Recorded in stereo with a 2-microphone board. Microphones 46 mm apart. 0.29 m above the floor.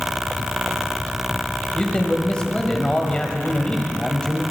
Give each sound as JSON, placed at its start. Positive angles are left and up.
{"t": 1.8, "sound": "a man speaking", "side_deg": 20, "distance_m": 1.2}